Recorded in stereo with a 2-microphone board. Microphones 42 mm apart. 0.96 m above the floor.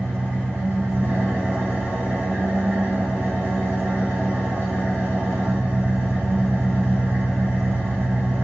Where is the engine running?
85° right, 1.9 m.